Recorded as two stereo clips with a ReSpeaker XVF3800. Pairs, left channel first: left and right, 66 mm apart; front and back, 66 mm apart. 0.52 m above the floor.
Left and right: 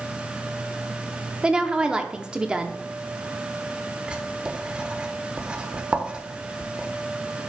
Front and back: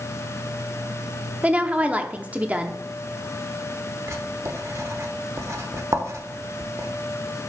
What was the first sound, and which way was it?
A woman speaking, 145° right.